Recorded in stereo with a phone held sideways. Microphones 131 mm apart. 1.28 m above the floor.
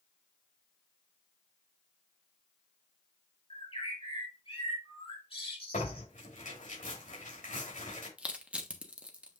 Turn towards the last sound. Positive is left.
turn(degrees=-10)  # may be behind; listen again after turning